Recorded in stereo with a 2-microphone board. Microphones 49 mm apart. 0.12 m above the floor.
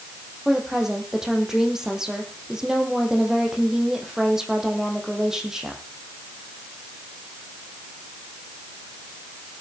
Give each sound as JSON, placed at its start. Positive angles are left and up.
{"t": 0.5, "sound": "a woman speaking", "side_deg": -10, "distance_m": 4.0}